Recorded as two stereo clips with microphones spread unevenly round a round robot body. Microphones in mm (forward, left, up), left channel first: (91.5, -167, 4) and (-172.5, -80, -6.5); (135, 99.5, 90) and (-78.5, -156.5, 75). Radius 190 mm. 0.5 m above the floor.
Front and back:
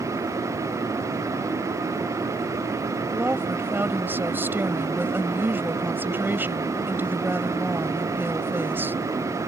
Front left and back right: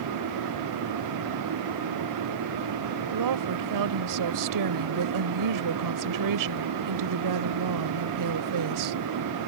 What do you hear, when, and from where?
3.1 s a woman speaking: 115° right